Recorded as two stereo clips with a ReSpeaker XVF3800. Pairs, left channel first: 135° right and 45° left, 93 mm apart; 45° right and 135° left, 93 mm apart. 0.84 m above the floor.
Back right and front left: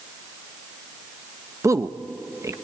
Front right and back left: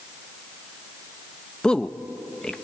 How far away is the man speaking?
About 0.7 m.